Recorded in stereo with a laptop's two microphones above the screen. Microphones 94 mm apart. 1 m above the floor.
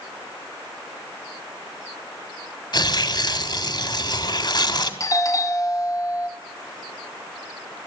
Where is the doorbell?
35° left (ahead or behind), 1.7 m.